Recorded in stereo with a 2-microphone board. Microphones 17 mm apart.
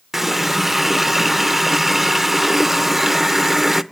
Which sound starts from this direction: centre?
A running tap, at 0.1 s.